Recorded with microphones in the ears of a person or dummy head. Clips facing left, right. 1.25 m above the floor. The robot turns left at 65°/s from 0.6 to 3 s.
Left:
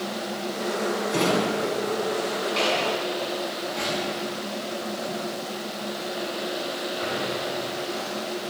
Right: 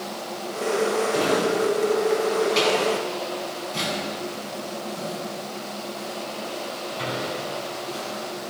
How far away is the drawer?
About 8 m.